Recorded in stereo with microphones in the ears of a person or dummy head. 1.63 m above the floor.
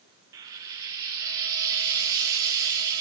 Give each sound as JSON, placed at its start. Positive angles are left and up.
{"t": 0.3, "sound": "frying", "side_deg": -15, "distance_m": 0.7}